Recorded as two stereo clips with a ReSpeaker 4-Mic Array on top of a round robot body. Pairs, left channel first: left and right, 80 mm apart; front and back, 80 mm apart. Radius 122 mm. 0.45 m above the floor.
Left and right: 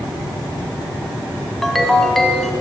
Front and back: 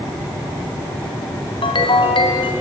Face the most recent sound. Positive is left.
turn(degrees=0)